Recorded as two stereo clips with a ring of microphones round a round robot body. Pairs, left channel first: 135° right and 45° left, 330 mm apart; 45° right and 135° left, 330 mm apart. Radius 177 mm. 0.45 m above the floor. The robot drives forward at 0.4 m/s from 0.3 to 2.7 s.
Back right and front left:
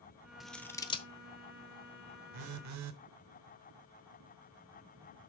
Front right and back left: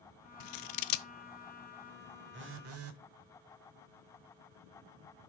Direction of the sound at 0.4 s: 45° right.